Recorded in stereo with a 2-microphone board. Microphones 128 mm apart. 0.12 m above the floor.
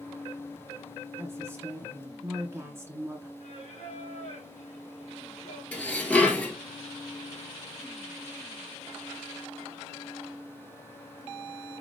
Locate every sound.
1.2 s a woman speaking: 20° right (ahead or behind), 1.6 m
3.4 s singing: 55° left (ahead or behind), 3 m
5.7 s dishes clattering: 10° left (ahead or behind), 1.3 m